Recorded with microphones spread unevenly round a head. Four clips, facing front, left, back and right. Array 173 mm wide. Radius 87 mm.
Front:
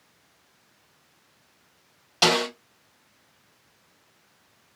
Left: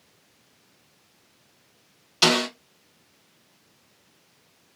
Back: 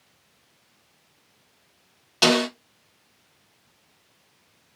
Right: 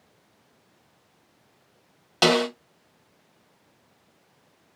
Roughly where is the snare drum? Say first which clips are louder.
Right 2 dB, back 2 dB; right.